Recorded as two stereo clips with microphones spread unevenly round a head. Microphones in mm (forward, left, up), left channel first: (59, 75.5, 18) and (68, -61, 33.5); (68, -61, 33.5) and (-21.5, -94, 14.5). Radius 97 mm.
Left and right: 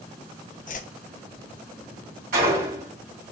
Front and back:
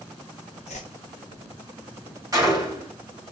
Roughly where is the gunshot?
Right.